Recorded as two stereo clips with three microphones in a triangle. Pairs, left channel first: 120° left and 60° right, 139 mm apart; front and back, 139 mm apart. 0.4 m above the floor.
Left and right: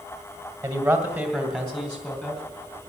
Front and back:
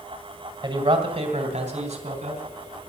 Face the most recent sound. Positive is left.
turn(degrees=-160)